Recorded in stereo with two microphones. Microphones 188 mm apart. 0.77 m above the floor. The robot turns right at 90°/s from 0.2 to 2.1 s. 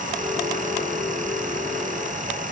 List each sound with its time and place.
Only background noise.